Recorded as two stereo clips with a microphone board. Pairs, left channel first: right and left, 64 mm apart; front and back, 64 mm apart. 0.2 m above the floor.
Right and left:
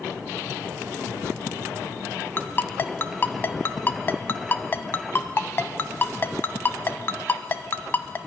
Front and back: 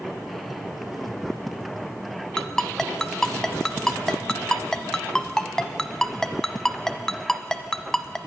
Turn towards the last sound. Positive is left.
turn(degrees=-75)